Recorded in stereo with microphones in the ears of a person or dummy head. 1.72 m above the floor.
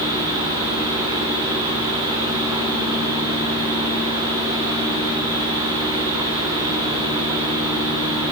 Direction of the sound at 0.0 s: 30° right (ahead or behind).